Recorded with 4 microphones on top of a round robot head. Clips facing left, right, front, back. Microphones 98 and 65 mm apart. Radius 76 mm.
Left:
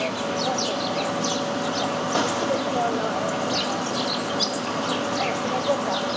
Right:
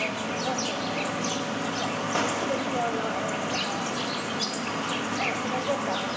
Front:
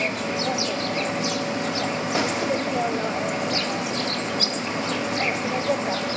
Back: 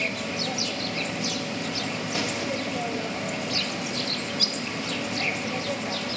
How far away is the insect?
About 0.8 m.